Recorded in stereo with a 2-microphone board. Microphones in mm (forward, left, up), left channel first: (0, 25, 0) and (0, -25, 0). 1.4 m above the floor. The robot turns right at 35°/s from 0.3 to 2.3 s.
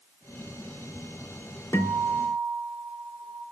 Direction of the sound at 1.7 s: 75° left (ahead or behind).